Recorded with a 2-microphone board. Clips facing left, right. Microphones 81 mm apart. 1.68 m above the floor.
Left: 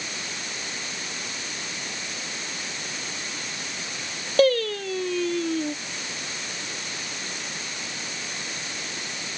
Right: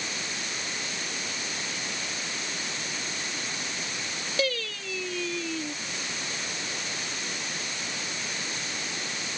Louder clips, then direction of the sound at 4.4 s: Left 11 dB; 50° left (ahead or behind).